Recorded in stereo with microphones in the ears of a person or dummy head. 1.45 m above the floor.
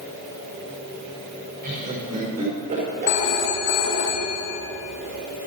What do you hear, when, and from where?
1.6 s laughter: 45° right (ahead or behind), 4.5 m
3.1 s a phone ringing: 60° left (ahead or behind), 1.5 m